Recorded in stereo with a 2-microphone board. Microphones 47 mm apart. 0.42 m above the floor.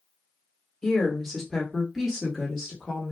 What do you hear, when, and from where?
0.8 s a woman speaking: 10° left (ahead or behind), 1.1 m; by 3.1 s 15° right (ahead or behind), 1.4 m